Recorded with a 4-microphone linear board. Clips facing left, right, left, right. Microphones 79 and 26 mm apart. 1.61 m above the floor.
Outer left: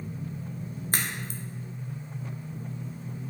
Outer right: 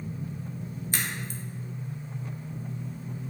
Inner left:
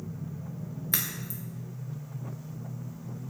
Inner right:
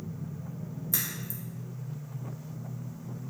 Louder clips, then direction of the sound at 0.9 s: Outer left 1 dB, inner left 2 dB; 45° left (ahead or behind).